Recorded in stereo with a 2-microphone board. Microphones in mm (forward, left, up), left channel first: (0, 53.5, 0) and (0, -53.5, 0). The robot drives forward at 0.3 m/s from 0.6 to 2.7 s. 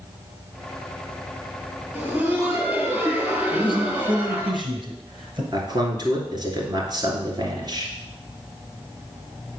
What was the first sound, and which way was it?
Laughter, 20° right (ahead or behind).